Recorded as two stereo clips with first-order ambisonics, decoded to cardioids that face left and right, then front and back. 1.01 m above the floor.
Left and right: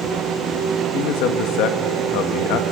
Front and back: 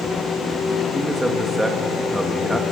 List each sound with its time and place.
0.9 s a man speaking: 95° left, 1.7 m